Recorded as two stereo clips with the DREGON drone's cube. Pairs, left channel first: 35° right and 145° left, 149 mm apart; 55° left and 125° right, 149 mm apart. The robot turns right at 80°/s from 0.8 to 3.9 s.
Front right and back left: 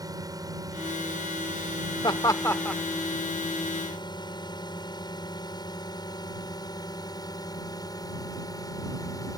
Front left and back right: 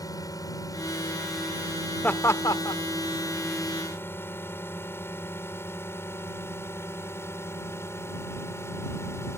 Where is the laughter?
15° right; by 2.8 s 50° left.